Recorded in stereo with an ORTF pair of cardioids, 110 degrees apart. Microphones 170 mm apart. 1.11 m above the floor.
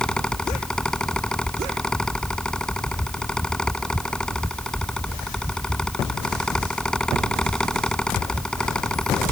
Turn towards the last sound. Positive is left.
turn(degrees=5)